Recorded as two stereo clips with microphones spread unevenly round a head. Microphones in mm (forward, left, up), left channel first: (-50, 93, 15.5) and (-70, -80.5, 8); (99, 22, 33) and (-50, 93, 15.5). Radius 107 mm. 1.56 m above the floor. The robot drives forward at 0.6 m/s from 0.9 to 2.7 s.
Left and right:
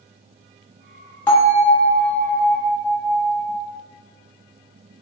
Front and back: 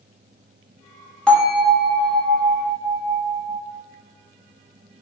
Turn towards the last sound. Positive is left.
turn(degrees=165)